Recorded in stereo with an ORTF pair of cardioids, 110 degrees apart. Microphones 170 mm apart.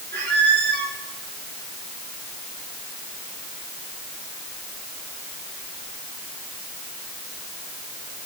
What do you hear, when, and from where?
0.1 s a squeak: 65° right, 2.5 m